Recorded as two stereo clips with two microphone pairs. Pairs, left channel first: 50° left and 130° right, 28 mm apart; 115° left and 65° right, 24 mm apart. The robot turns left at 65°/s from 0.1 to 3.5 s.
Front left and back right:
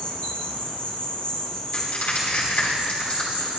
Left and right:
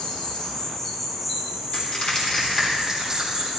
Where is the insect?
90° left, 2 m; by 3.6 s 130° right, 2 m.